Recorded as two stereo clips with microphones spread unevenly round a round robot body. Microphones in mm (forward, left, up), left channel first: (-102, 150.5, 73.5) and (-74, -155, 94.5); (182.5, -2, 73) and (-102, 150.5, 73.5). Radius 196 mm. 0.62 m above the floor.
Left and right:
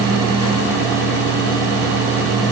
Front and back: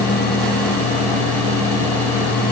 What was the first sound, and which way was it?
Only background noise.